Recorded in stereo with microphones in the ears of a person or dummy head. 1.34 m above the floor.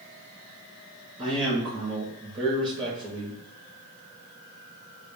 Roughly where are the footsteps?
No footsteps in this recording.